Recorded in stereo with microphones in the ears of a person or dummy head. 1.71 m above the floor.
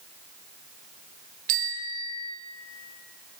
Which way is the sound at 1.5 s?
50° right (ahead or behind).